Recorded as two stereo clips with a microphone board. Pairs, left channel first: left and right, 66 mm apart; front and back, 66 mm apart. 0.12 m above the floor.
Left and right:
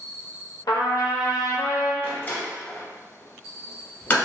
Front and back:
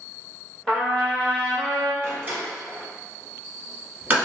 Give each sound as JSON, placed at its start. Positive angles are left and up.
{"t": 0.7, "sound": "a trumpet", "azimuth_deg": 75, "distance_m": 0.6}
{"t": 2.0, "sound": "a door slam", "azimuth_deg": 135, "distance_m": 1.2}